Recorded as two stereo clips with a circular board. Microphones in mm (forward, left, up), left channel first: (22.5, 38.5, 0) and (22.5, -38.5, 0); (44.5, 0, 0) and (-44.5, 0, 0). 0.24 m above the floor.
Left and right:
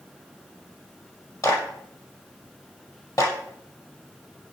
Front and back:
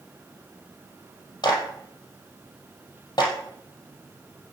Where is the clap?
45° left, 6 m.